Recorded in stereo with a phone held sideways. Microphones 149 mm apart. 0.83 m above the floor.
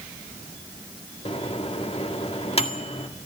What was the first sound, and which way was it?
A microwave, 40° left (ahead or behind).